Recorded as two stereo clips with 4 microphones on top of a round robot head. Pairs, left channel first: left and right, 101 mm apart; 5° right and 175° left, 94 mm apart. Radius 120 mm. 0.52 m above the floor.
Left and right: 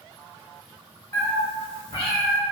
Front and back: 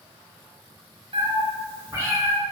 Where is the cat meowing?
145° left, 1.4 m; by 2.4 s 105° left, 3 m.